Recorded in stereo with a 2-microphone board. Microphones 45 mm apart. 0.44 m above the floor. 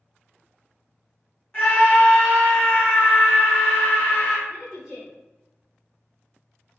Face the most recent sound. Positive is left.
turn(degrees=-10)  # may be behind; listen again after turning